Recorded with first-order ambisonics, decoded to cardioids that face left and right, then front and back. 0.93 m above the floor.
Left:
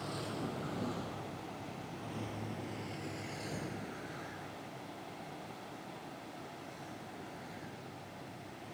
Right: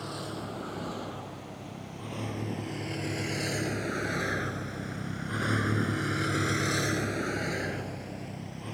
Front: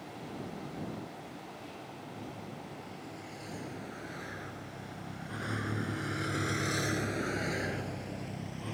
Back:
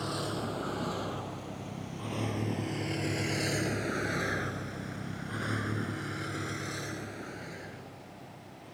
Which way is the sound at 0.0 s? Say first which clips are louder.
Right 3 dB, back 9 dB; 165° right.